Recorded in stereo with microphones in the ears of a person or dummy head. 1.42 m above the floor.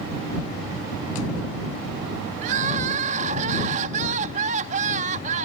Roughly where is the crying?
Right.